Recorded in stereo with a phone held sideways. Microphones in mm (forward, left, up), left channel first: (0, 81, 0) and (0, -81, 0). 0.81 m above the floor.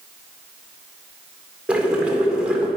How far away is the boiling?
About 2 m.